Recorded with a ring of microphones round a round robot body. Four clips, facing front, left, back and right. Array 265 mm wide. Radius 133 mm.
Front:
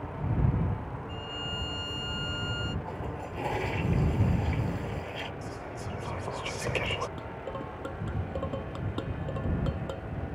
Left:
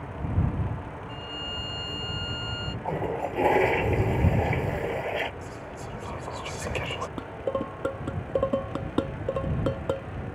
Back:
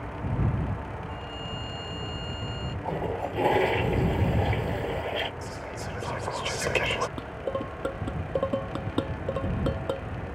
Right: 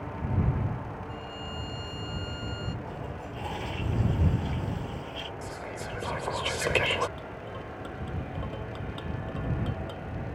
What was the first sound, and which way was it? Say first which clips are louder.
A violin: left 1 dB, back 1 dB; 35° left.